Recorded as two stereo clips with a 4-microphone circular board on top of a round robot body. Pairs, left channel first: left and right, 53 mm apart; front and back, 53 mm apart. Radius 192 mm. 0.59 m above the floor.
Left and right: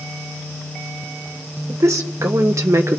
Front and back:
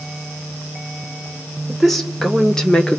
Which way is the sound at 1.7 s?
90° right.